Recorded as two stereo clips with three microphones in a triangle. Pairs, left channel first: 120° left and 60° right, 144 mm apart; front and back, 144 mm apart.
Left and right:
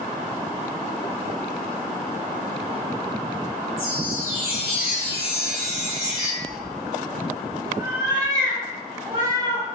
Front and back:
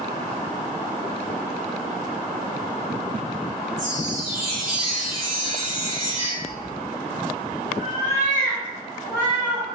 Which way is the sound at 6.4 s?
Straight ahead.